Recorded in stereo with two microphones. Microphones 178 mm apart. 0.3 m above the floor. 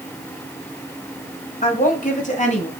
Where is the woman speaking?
50° left (ahead or behind), 2 m; by 2.7 s 40° left (ahead or behind), 1.9 m.